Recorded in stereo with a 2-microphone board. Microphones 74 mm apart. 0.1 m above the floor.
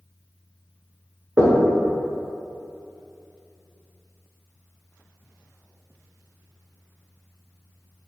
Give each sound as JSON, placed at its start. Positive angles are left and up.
{"t": 1.4, "sound": "knocking", "side_deg": -30, "distance_m": 0.9}